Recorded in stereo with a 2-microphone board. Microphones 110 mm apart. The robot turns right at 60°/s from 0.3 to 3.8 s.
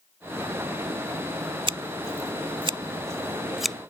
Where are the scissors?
50° right (ahead or behind); by 3.8 s 5° left (ahead or behind).